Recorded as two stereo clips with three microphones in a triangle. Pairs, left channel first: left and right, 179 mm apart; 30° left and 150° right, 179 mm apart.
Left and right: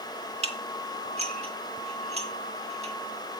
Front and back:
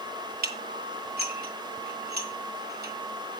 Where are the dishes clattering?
140° right, 1.4 m.